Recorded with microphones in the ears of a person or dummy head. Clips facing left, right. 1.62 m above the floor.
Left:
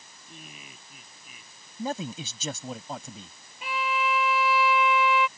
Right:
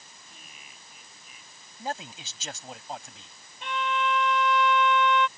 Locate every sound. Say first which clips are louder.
0.3 s laughter: left 10 dB; 65° left (ahead or behind); by 1.7 s 55° left (ahead or behind)
1.8 s a man speaking: left 4 dB; 75° left (ahead or behind)
3.6 s a violin: even; centre (ahead or behind)